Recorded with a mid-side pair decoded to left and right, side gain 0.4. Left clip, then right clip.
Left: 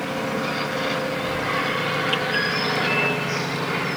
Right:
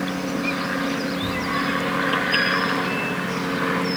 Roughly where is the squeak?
Ahead right.